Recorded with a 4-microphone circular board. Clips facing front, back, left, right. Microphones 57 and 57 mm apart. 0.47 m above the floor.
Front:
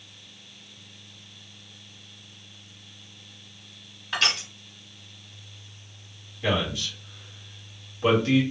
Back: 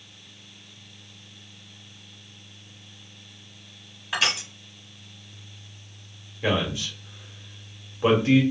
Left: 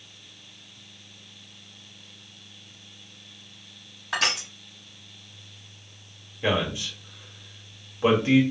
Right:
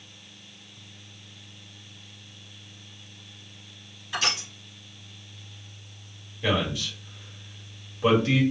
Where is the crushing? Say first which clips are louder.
Back 1 dB, left 2 dB; 95° left, 1.0 m.